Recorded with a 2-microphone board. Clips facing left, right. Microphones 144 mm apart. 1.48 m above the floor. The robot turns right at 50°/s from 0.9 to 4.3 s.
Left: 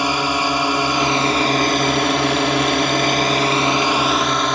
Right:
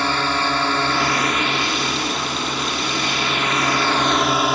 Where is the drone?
15° left; by 4.5 s 175° right.